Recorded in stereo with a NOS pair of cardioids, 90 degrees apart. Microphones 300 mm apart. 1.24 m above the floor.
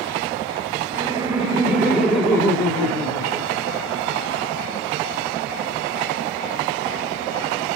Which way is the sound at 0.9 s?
15° right.